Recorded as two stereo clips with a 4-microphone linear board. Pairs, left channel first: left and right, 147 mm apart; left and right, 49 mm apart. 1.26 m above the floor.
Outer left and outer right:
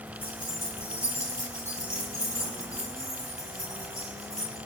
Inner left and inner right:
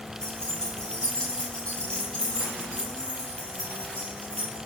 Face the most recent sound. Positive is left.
turn(degrees=25)  # may be behind; listen again after turning